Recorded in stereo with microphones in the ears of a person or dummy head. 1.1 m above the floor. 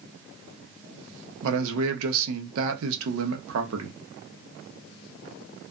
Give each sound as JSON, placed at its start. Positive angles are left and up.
{"t": 1.4, "sound": "a man speaking", "side_deg": -75, "distance_m": 0.8}